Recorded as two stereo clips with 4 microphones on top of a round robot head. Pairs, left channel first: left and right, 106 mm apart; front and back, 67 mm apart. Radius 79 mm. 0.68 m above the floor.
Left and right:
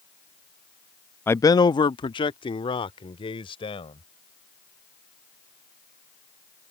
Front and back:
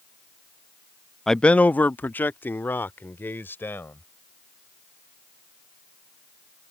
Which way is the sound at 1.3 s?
75° left.